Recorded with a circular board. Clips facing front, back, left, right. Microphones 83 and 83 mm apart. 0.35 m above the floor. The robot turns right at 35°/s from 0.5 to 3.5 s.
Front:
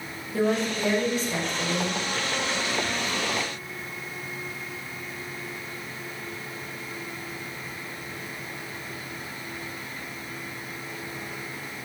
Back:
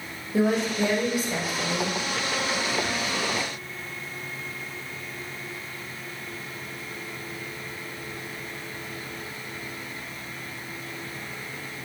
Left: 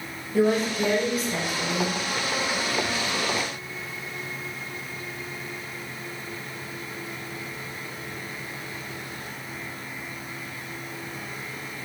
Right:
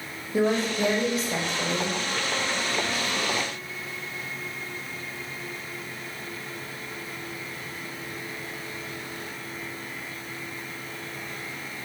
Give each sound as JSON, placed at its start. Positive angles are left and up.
{"t": 0.3, "sound": "a woman speaking", "azimuth_deg": -135, "distance_m": 1.1}